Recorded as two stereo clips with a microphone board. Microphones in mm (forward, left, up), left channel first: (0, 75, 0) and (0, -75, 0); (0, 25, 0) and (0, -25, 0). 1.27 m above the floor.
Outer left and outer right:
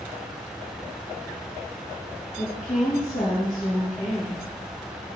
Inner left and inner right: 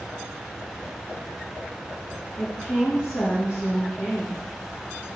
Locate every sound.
2.4 s a woman speaking: 55° left (ahead or behind), 1.7 m